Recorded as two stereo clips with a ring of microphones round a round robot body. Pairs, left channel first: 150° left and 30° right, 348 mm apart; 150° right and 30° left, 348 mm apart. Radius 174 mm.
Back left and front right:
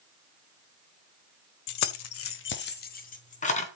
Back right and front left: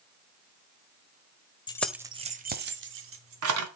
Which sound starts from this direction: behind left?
Keys jangling, at 1.7 s.